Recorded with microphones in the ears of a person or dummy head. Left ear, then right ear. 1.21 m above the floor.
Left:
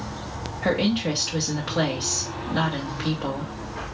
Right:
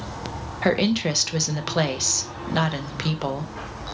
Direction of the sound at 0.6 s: 75° right (ahead or behind).